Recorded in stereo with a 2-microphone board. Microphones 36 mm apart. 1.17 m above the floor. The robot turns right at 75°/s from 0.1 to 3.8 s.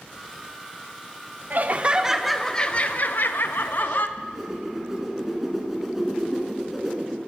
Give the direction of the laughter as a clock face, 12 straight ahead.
2 o'clock.